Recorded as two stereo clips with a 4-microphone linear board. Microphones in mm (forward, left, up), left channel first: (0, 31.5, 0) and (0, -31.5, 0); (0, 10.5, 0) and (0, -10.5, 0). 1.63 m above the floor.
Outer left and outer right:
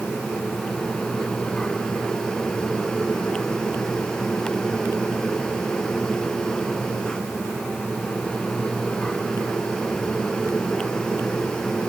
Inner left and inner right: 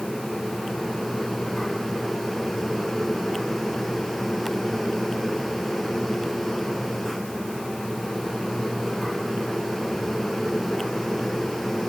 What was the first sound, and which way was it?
Only background noise.